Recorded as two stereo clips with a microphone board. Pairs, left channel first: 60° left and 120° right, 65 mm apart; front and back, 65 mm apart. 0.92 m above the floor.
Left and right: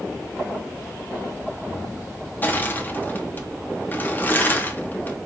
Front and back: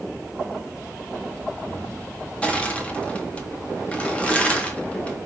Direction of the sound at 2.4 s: 50° left.